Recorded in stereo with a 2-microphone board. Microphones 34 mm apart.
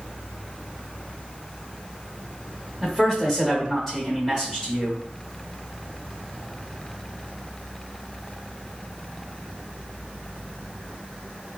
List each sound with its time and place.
2.8 s a man speaking: 10° left (ahead or behind), 1.0 m